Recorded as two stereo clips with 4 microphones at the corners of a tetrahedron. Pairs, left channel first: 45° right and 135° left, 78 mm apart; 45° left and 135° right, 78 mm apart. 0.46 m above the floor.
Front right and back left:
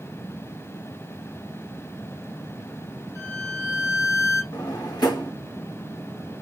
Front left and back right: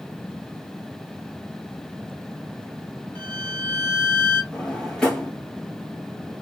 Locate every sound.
3.1 s a violin: 15° right, 1.6 m
4.5 s a drawer: 35° right, 1.5 m